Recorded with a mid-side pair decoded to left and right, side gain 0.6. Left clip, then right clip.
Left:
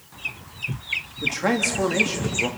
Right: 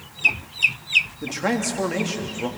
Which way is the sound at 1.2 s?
Straight ahead.